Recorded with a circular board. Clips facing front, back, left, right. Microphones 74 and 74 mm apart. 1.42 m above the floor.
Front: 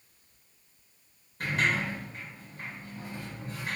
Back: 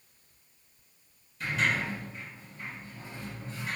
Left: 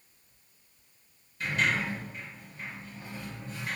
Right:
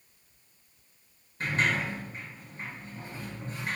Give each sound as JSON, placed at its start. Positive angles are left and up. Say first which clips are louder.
{"t": 1.4, "sound": "a sliding door", "louder": "front 1 dB, right 1 dB", "azimuth_deg": -35, "distance_m": 3.0}